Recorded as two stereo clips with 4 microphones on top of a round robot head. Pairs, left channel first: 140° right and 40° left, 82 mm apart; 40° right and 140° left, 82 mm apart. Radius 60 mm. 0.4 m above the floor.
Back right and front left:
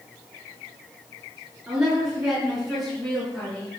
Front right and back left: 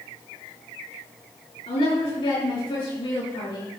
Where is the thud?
I don't hear a thud.